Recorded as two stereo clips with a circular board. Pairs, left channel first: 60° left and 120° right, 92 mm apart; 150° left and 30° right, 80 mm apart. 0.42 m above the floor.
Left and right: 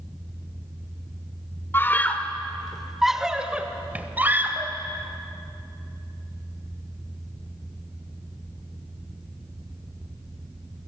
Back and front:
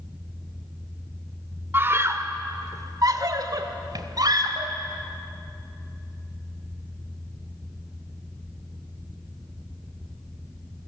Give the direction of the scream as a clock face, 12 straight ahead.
12 o'clock.